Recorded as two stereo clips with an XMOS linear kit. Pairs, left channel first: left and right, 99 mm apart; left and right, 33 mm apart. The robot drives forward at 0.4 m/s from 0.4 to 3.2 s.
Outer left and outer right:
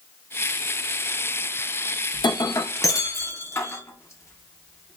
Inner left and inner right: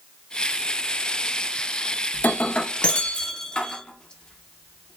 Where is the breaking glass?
50° left (ahead or behind), 0.6 m; by 5.0 s 30° left (ahead or behind), 0.9 m.